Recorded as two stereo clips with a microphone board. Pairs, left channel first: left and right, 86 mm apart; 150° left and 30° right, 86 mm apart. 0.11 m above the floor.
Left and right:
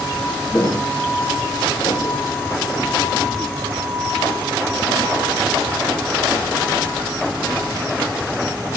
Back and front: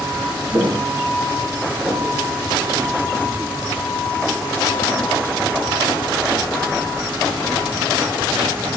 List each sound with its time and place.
0.5 s footsteps: 25° left, 3 m; by 3.2 s 80° left, 4.5 m